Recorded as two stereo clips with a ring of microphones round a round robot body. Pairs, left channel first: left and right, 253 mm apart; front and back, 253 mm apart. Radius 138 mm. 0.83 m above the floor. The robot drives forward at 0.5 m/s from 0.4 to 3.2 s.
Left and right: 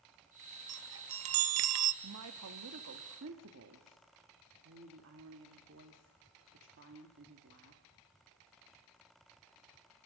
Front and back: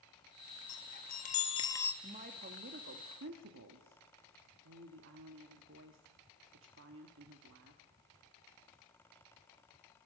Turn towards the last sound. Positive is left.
turn(degrees=-135)